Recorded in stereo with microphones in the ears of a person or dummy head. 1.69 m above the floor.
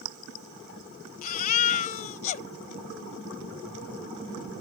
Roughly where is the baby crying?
Left.